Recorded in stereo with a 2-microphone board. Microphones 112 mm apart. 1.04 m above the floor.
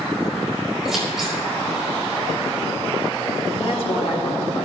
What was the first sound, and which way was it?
Scissors, 5° right (ahead or behind).